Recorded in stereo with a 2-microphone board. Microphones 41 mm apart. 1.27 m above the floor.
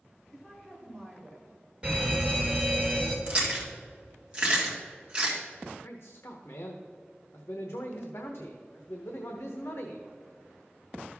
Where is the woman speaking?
Centre (ahead or behind), 2.5 m; by 1.6 s 10° left (ahead or behind), 3.5 m.